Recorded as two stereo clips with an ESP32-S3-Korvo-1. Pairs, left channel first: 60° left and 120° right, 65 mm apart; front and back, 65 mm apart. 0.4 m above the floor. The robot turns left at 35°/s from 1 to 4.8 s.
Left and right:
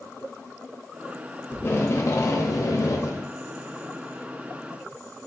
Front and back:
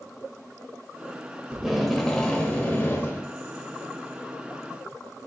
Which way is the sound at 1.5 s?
105° left.